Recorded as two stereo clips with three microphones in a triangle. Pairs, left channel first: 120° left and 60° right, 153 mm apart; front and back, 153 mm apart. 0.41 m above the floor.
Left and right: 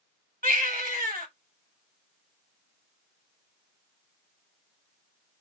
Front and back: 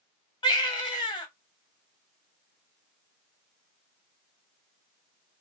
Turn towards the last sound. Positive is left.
turn(degrees=-60)